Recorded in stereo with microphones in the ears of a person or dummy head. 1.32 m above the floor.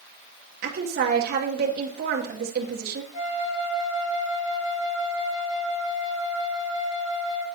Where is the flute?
35° left (ahead or behind), 2.5 m.